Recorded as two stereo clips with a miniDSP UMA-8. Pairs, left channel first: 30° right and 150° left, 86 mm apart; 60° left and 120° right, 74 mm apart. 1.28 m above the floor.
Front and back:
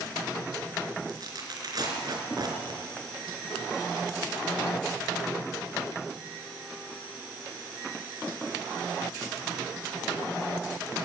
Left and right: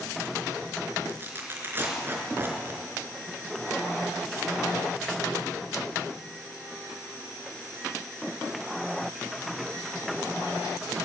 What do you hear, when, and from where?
1.1 s tearing paper: straight behind, 4 m